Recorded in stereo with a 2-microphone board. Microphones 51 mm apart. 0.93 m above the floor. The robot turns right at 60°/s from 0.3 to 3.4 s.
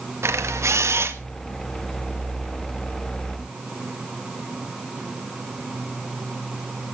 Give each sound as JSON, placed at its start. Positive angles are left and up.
{"t": 0.2, "sound": "a camera shutter", "azimuth_deg": -110, "distance_m": 1.3}